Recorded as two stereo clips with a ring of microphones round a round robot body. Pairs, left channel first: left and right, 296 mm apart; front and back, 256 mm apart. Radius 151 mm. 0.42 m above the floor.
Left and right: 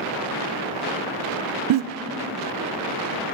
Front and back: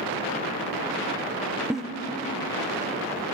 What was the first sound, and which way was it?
A giggle, 95° right.